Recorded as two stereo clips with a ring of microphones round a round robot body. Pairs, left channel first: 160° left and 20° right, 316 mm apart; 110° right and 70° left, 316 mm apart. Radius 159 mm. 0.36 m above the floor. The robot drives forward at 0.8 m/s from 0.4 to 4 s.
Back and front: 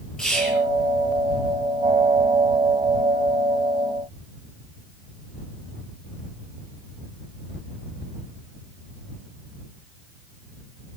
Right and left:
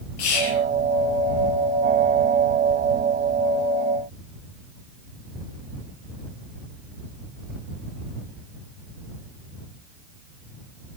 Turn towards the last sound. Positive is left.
turn(degrees=-130)